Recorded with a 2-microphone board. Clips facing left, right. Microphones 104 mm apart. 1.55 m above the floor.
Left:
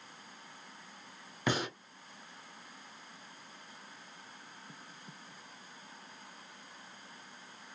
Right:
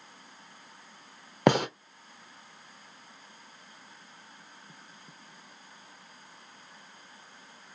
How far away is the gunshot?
About 0.6 m.